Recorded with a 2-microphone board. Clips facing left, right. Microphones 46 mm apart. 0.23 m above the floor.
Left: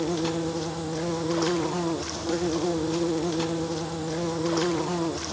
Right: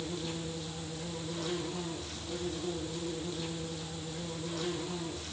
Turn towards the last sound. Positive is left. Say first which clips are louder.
# left 11 dB
turn(degrees=70)  # may be behind; listen again after turning